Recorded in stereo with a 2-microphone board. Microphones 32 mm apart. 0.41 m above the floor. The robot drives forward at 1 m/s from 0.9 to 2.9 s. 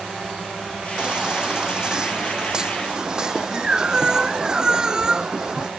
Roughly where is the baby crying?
Right.